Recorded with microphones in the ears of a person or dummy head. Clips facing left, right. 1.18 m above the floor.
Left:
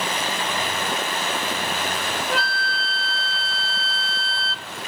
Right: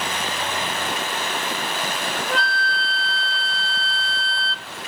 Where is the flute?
5° left (ahead or behind).